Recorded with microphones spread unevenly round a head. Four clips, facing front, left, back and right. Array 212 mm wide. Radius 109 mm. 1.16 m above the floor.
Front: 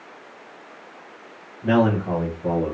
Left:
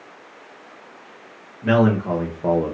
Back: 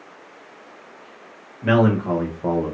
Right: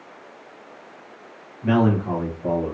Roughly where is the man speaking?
Behind left.